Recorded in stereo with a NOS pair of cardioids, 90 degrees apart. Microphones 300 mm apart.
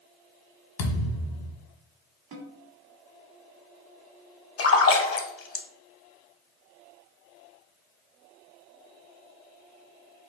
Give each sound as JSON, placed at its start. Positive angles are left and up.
{"t": 0.8, "sound": "a thud", "azimuth_deg": 65, "distance_m": 1.4}
{"t": 2.3, "sound": "a snare drum", "azimuth_deg": -65, "distance_m": 1.5}
{"t": 4.6, "sound": "a splash", "azimuth_deg": 45, "distance_m": 0.9}